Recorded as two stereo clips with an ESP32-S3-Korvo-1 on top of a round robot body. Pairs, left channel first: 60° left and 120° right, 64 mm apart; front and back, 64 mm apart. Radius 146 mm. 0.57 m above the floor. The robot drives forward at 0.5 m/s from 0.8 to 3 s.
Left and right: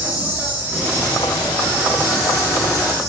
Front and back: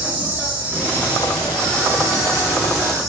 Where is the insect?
140° right, 1.0 m; by 3.1 s 170° right, 1.7 m.